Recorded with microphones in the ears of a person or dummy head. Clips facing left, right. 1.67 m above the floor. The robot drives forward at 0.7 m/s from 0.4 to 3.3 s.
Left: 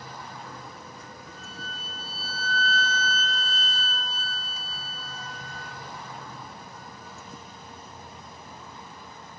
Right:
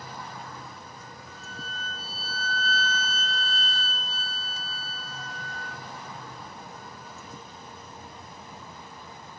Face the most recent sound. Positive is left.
turn(degrees=70)  # may be behind; listen again after turning